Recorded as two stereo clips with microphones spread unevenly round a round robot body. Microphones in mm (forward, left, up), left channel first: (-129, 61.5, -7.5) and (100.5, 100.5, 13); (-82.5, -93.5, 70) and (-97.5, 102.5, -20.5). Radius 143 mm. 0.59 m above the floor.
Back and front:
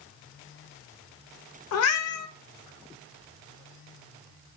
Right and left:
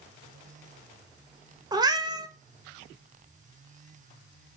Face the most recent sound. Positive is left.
turn(degrees=170)